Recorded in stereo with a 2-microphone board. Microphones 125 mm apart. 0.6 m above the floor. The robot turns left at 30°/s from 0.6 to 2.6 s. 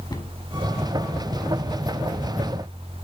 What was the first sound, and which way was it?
A cupboard door, 30° left (ahead or behind).